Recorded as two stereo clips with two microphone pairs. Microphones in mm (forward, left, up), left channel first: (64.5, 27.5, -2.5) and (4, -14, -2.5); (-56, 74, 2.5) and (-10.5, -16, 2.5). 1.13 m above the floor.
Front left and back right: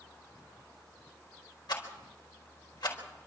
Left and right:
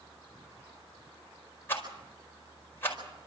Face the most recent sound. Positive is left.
turn(degrees=50)